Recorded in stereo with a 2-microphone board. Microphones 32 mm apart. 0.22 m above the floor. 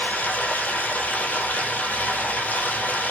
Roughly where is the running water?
Left.